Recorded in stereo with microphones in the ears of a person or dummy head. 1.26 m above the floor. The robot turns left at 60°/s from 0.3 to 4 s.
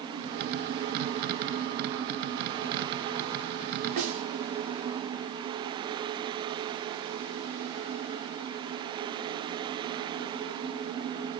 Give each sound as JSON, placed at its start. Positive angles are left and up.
{"t": 4.0, "sound": "a snare drum", "side_deg": -40, "distance_m": 1.3}